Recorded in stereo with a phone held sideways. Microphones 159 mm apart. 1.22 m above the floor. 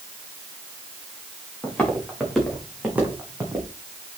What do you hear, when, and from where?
1.6 s footsteps: 5° left (ahead or behind), 5 m; by 3.7 s 20° right (ahead or behind), 3.5 m